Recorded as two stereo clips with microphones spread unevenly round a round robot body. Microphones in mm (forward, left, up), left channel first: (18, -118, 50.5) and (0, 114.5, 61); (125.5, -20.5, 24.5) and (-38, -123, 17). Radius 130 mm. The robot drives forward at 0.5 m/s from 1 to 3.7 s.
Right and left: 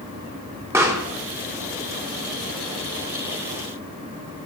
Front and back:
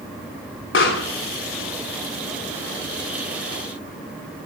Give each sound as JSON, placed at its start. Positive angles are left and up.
{"t": 0.7, "sound": "a pop", "azimuth_deg": 15, "distance_m": 3.0}